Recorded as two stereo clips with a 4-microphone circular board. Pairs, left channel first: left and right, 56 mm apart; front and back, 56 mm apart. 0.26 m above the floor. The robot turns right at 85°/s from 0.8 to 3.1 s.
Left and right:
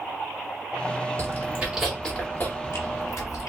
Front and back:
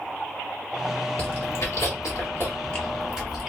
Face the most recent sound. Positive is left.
turn(degrees=100)